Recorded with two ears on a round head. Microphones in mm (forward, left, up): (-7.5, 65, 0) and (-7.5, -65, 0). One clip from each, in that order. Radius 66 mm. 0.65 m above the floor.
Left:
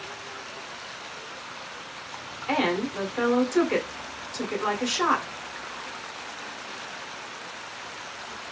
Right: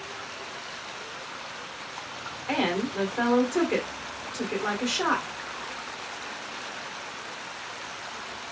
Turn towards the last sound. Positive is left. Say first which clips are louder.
# left 2 dB
turn(degrees=30)  # may be behind; listen again after turning